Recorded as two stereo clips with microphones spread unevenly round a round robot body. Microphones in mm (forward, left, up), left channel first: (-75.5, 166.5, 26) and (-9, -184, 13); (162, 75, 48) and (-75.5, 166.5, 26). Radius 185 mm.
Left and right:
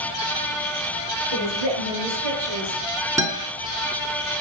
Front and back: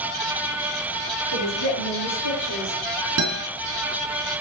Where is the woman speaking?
60° right, 8 m; by 2.8 s 55° right, 7 m.